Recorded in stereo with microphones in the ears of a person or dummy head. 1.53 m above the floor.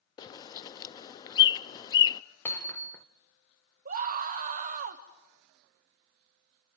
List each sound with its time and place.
0.2 s a bird: 20° left (ahead or behind), 0.5 m
2.5 s hammering: 15° left (ahead or behind), 0.7 m
3.9 s a scream: 45° right (ahead or behind), 1.5 m